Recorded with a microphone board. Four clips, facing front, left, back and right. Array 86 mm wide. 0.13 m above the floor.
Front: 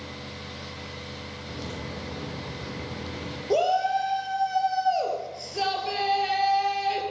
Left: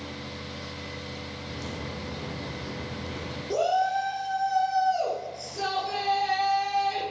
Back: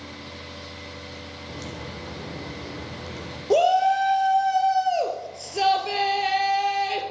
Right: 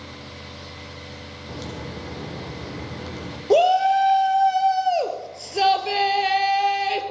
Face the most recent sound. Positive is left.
turn(degrees=-110)